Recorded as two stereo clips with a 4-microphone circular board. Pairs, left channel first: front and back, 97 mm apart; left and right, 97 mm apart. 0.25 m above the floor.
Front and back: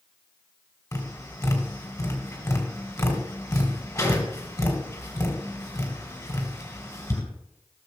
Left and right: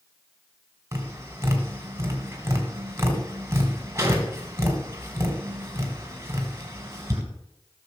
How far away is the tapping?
About 2.5 m.